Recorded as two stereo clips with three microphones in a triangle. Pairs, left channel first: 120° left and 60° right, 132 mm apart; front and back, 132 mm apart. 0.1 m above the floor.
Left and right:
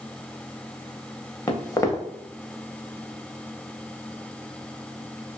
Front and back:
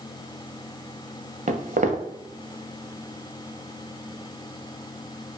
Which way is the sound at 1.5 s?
175° right.